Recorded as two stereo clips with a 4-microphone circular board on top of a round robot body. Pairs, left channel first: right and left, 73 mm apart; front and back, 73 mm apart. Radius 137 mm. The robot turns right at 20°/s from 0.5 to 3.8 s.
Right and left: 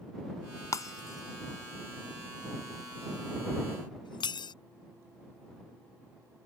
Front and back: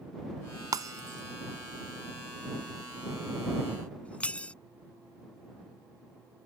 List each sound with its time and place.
0.7 s breaking glass: 135° right; by 4.5 s 75° right